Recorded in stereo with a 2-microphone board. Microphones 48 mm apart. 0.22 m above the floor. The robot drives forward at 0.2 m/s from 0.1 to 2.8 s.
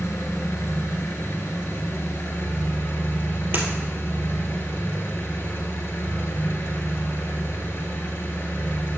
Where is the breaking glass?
45° right (ahead or behind), 2 m.